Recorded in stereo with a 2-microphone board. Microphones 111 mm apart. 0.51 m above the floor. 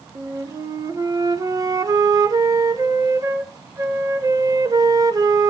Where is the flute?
35° right (ahead or behind), 1.5 m.